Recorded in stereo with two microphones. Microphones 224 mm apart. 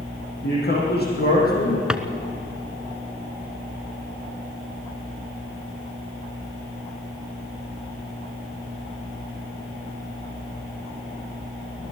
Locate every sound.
0.4 s a man speaking: 50° left (ahead or behind), 7 m; by 1.8 s 40° left (ahead or behind), 7 m
1.9 s a drawer: 5° right (ahead or behind), 1.0 m